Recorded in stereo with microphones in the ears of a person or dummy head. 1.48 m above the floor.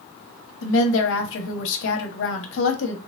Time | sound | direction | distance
0.6 | a woman speaking | 80° left | 0.9 m